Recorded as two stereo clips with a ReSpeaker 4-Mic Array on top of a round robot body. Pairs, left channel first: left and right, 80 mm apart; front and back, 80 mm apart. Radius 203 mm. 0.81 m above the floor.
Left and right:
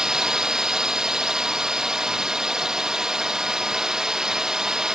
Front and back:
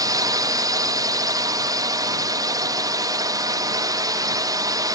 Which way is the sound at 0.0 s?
170° right.